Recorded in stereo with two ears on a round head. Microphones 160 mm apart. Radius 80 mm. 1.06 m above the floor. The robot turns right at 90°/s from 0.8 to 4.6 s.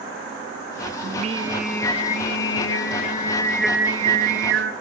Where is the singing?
55° right, 1.4 m; by 4.7 s 95° right, 1.4 m.